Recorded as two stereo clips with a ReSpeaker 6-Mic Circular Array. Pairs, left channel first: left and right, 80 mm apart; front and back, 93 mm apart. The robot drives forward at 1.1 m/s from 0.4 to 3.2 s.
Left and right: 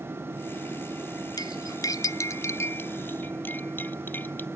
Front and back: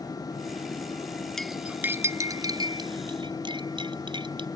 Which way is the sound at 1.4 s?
85° left.